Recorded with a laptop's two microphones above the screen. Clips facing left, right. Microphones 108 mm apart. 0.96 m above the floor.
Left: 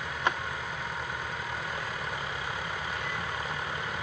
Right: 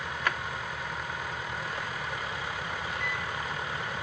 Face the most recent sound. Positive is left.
turn(degrees=-65)  # may be behind; listen again after turning